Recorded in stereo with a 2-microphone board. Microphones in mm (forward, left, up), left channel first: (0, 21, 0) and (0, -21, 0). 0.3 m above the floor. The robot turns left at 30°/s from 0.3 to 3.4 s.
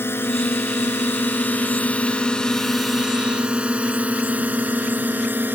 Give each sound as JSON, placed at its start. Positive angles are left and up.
{"t": 0.0, "sound": "a drone", "side_deg": 65}